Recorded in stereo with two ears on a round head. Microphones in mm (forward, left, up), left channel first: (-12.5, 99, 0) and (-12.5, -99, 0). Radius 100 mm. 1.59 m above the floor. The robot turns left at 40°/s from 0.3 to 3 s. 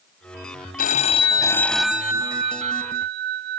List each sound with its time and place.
0.8 s a phone ringing: 40° left; by 3.6 s 50° right